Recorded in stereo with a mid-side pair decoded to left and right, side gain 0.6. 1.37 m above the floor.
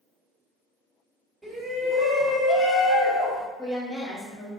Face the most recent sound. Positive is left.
turn(degrees=20)